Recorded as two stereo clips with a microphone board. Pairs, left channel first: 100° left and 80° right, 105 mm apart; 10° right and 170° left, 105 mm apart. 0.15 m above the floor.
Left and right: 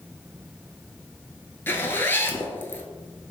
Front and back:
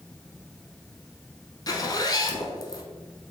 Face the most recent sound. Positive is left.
turn(degrees=35)